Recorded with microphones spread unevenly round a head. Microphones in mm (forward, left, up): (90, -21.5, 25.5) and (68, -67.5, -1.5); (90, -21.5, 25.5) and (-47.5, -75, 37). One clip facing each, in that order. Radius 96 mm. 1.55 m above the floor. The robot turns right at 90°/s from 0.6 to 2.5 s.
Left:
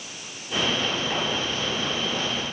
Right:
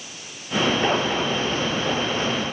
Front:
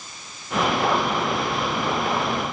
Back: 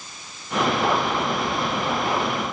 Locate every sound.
Only background noise.